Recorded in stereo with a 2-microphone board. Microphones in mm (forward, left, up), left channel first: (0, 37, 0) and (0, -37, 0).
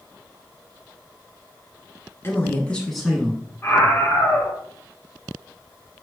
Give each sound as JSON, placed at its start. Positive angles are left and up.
{"t": 2.2, "sound": "a man speaking", "side_deg": 30, "distance_m": 1.3}
{"t": 3.6, "sound": "a scream", "side_deg": 20, "distance_m": 1.7}